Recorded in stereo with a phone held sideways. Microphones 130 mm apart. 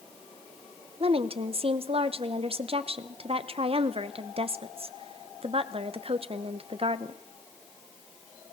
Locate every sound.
1.0 s a woman speaking: 45° right (ahead or behind), 0.9 m